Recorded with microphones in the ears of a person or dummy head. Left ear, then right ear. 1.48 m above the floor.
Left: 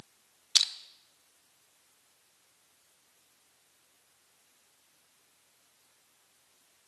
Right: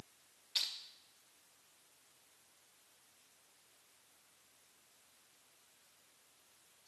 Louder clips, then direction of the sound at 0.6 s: Left 12 dB; 45° left (ahead or behind).